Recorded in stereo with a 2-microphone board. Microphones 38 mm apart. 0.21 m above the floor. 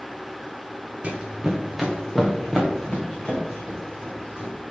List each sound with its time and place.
1.0 s running footsteps: 35° right (ahead or behind), 0.7 m; by 4.5 s 25° left (ahead or behind), 2.5 m